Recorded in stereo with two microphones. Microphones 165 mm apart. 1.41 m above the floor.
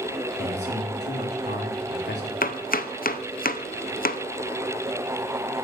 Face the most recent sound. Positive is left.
turn(degrees=60)  # may be behind; listen again after turning